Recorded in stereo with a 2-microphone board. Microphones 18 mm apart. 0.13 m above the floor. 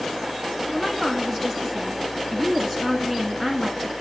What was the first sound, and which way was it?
A woman speaking, 15° left (ahead or behind).